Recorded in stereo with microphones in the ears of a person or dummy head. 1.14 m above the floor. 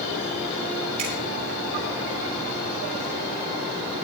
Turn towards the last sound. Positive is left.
turn(degrees=-35)  # may be behind; listen again after turning